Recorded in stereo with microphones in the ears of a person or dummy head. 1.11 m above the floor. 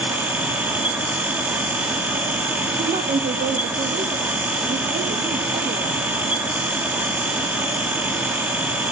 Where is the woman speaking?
45° right (ahead or behind), 1.7 m.